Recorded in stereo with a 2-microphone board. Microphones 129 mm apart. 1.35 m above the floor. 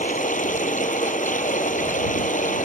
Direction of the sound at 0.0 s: 85° left.